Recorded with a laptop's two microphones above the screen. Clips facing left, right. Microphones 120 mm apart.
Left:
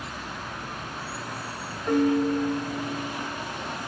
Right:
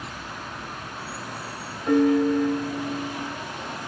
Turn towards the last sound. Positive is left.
turn(degrees=-65)  # may be behind; listen again after turning